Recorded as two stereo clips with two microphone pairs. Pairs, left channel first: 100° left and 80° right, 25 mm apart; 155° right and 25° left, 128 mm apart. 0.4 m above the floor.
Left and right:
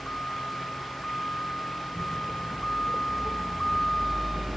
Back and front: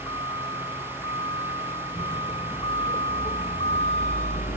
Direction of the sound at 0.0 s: 150° left.